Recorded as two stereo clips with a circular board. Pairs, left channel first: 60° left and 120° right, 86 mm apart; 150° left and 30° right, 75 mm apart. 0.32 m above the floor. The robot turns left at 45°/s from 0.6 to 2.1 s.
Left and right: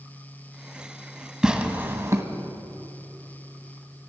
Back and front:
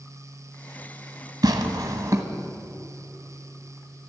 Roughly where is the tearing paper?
Ahead right.